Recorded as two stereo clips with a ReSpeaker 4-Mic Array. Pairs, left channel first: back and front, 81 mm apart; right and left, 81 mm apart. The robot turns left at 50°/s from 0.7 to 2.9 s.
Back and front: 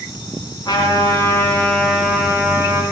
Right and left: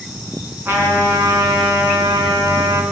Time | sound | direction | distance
0.7 | a trumpet | 150° left | 3 m